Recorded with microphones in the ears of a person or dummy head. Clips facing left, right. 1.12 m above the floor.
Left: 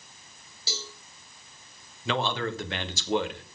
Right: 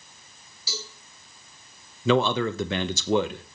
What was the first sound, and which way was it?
A cowbell, 30° left (ahead or behind).